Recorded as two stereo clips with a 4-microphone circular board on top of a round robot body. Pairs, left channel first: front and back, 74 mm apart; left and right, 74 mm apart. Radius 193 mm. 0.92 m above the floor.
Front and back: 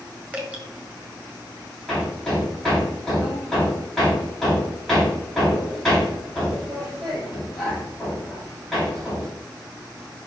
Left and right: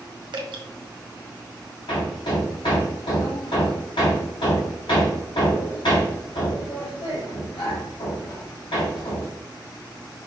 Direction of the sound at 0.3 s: 110° right.